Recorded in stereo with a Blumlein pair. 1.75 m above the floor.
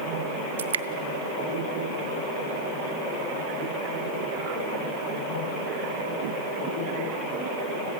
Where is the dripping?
65° right, 0.8 m.